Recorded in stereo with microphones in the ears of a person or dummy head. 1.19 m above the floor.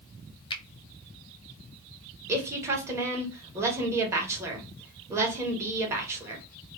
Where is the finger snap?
25° left (ahead or behind), 0.5 m.